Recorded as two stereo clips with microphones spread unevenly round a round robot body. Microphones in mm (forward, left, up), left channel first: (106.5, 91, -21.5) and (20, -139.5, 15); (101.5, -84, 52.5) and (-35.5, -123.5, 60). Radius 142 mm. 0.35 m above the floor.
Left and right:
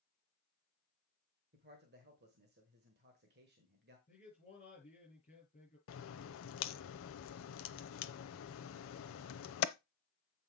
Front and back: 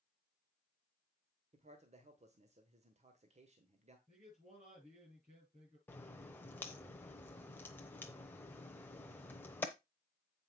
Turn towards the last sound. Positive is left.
turn(degrees=90)